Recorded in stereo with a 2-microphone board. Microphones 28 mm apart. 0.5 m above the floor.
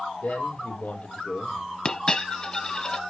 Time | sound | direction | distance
0.2 | a man speaking | 60° left (ahead or behind) | 2.5 m
1.9 | a dropped coin | 25° left (ahead or behind) | 1.0 m